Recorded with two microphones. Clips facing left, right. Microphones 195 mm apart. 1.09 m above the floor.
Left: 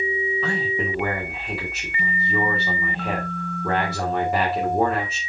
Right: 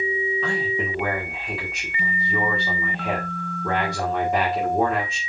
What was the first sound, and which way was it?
A man speaking, 5° left (ahead or behind).